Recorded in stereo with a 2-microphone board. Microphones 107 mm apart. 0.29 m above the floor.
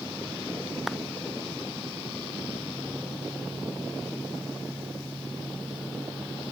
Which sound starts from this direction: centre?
A clap, at 0.9 s.